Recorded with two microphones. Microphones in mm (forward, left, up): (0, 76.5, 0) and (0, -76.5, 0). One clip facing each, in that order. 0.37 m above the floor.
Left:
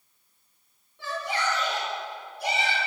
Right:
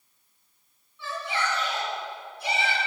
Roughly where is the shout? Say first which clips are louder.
Left 1 dB; left.